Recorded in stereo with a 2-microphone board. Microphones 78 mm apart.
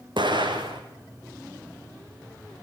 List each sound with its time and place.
0.2 s an explosion: 75° right (ahead or behind), 2.5 m